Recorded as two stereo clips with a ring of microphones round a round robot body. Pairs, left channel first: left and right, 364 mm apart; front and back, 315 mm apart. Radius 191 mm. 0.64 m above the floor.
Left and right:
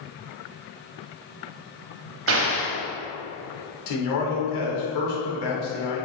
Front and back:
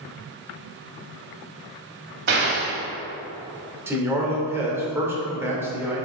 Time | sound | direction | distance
2.3 | an explosion | 135° right | 1.5 m
3.9 | a man speaking | 100° left | 2 m